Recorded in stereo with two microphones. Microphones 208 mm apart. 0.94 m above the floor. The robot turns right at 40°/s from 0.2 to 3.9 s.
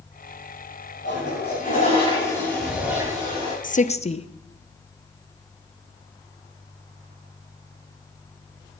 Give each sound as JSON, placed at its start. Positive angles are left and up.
{"t": 1.0, "sound": "a toilet flushing", "azimuth_deg": 115, "distance_m": 7.5}
{"t": 3.6, "sound": "a woman speaking", "side_deg": 40, "distance_m": 0.7}